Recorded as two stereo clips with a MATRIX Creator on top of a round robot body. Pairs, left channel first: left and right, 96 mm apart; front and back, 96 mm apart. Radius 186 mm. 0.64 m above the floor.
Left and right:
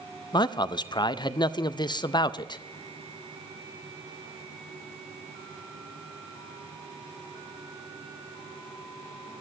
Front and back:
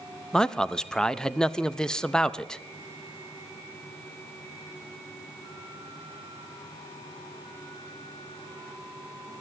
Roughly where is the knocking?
I don't hear knocking.